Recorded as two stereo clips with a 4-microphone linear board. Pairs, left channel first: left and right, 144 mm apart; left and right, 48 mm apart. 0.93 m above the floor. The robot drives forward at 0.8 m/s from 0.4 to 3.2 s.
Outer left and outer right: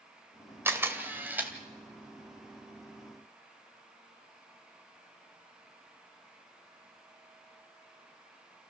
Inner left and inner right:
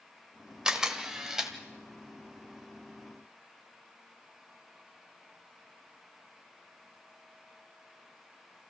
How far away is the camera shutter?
About 1.6 m.